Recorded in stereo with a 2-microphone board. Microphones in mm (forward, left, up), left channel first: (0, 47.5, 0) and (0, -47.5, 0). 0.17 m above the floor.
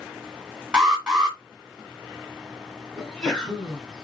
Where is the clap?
No clap in this recording.